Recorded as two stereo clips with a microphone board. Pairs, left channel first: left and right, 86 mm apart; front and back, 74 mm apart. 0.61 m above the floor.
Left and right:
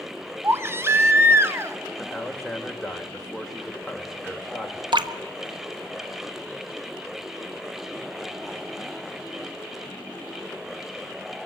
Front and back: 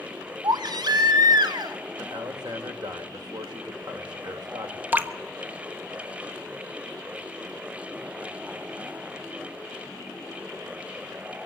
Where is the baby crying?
150° right, 1.2 m.